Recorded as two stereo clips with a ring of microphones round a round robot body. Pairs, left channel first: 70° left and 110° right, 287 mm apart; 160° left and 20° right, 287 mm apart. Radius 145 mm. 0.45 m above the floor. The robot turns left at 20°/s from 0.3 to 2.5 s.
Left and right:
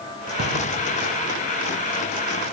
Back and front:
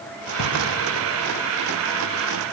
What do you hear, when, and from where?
0.4 s a drawer: 170° right, 7.5 m